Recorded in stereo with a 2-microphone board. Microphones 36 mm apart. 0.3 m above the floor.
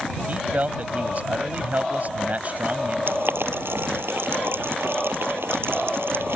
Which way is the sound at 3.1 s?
80° right.